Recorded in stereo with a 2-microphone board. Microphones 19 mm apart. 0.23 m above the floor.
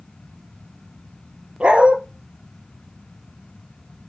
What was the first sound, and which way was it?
A dog barking, 80° right.